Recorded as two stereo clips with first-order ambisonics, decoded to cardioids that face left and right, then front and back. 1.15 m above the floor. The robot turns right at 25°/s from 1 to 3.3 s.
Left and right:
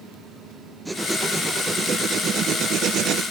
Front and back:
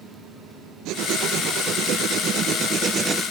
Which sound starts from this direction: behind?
Writing, at 0.8 s.